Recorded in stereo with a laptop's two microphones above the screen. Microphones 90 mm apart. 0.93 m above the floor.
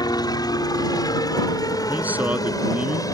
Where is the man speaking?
15° right (ahead or behind).